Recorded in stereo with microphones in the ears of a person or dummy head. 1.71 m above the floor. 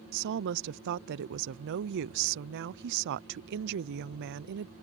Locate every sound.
0.1 s a woman speaking: 55° right (ahead or behind)